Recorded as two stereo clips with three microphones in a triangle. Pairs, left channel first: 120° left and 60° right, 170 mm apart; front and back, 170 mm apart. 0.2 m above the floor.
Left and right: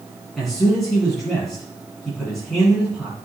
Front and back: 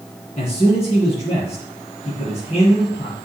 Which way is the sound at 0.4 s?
30° left.